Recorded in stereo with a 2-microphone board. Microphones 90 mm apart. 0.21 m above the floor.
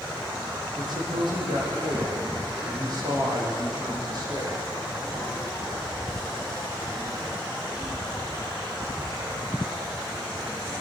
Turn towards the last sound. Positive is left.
turn(degrees=-55)  # may be behind; listen again after turning